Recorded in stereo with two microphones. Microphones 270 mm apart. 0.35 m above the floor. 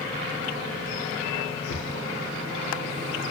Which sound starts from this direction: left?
A drawer, at 1.7 s.